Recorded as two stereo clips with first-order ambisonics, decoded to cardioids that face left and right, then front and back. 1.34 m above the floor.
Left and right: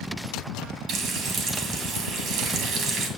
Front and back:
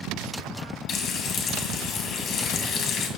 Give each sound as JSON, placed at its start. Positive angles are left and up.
{"t": 0.9, "sound": "frying", "azimuth_deg": -45, "distance_m": 1.9}